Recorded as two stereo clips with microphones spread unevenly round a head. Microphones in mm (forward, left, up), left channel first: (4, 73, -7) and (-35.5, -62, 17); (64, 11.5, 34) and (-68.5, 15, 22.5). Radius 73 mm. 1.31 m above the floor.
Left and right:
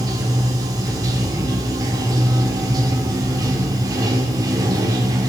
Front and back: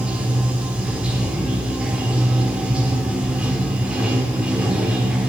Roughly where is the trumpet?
No trumpet in this recording.